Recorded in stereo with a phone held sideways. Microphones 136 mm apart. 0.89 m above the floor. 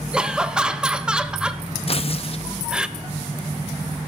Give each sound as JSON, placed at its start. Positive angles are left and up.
{"t": 0.1, "sound": "laughter", "side_deg": -5, "distance_m": 0.6}
{"t": 1.9, "sound": "tearing paper", "side_deg": 45, "distance_m": 0.7}